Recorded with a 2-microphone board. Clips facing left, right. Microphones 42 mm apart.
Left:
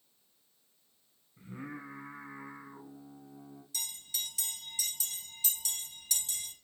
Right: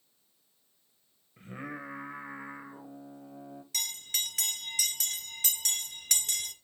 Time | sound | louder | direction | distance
1.4 | singing | right 3 dB | 70° right (ahead or behind) | 2.0 m
3.7 | a bell | right 6 dB | 65° right (ahead or behind) | 1.4 m